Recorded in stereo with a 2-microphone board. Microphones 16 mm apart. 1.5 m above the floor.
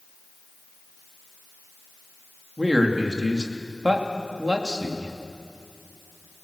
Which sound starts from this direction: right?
A man speaking, at 2.6 s.